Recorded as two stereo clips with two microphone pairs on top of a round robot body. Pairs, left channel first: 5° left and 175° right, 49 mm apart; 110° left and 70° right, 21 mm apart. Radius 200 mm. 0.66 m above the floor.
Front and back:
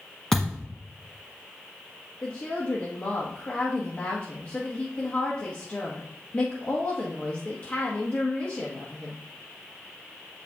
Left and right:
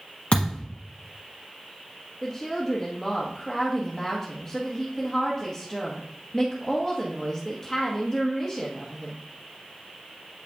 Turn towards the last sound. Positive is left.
turn(degrees=40)